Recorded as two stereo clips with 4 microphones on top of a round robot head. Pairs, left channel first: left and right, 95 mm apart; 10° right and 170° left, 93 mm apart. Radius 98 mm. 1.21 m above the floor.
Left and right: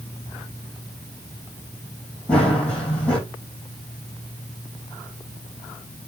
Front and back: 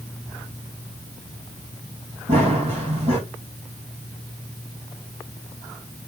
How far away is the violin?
I don't hear a violin.